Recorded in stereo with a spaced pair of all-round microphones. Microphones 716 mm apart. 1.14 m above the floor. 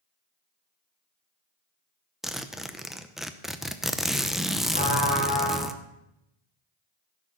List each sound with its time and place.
2.2 s a zipper: centre (ahead or behind), 0.6 m
4.7 s a trumpet: 10° left (ahead or behind), 5 m